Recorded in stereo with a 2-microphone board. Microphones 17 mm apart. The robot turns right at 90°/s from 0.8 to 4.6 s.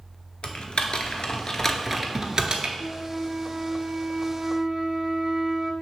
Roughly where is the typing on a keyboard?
Left.